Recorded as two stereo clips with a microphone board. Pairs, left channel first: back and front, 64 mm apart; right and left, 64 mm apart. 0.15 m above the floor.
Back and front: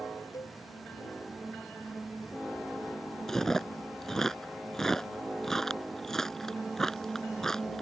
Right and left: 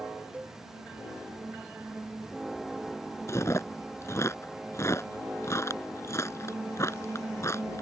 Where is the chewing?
100° right.